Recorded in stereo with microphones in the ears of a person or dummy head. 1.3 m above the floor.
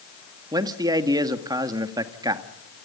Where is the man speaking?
20° right (ahead or behind), 1.9 m.